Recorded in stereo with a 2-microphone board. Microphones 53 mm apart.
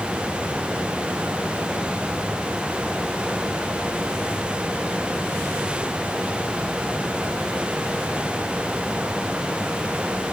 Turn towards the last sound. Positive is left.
No sound to turn to.